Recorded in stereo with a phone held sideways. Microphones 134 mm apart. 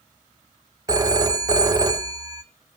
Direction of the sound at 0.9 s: 25° right (ahead or behind).